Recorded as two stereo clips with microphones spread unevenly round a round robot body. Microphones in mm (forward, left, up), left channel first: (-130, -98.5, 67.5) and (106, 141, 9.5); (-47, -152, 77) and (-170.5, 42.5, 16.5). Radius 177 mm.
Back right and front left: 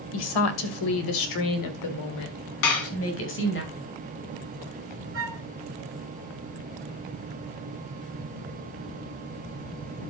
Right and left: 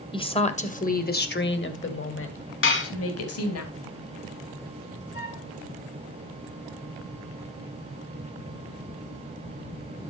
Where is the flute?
5° left, 2 m.